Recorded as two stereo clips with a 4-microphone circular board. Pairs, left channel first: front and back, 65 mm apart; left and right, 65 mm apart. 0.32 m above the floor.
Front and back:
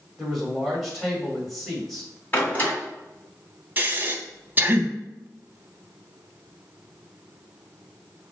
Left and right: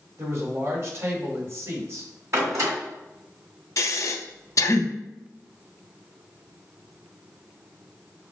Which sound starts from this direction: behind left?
Breathing, at 3.8 s.